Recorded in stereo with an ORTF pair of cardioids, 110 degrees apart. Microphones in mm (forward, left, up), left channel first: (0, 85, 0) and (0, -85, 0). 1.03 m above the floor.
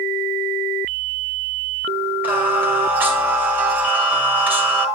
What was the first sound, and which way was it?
Singing, 10° right.